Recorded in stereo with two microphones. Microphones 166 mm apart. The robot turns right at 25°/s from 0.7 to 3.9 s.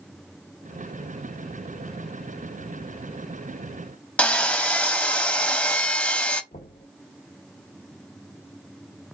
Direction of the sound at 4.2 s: 10° left (ahead or behind).